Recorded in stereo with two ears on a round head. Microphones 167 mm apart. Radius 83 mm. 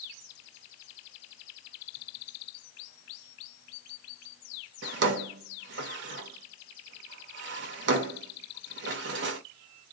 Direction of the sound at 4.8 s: 65° right (ahead or behind).